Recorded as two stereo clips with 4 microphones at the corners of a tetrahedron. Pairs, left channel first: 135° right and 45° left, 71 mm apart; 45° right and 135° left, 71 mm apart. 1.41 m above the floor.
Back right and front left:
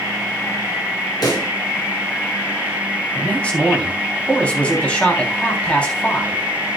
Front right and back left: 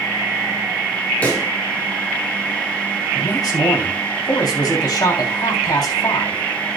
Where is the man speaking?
65° right, 3.5 m.